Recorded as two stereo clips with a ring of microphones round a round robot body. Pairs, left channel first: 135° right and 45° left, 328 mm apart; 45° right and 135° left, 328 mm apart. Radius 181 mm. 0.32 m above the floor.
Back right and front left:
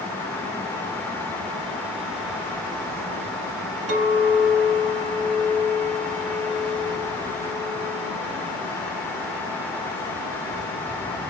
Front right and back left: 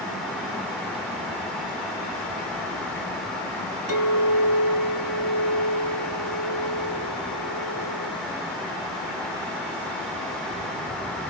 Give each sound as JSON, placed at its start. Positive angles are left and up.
{"t": 3.9, "sound": "a clink", "azimuth_deg": 90, "distance_m": 2.5}